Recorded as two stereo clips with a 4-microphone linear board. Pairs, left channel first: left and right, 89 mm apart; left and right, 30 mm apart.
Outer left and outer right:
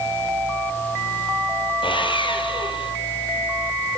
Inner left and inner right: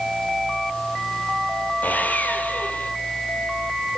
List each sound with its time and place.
1.8 s sawing: 70° left (ahead or behind), 4 m